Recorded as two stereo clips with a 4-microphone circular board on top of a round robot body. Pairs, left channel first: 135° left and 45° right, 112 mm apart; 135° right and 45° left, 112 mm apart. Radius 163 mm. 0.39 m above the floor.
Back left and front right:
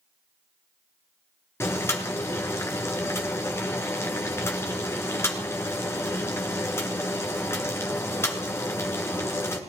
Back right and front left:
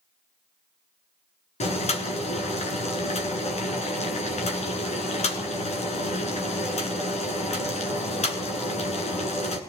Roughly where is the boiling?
Behind right.